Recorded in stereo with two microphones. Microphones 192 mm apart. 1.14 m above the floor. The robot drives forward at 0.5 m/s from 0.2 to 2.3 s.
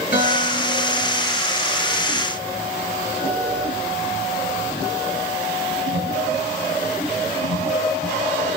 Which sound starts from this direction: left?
A guitar, at 0.1 s.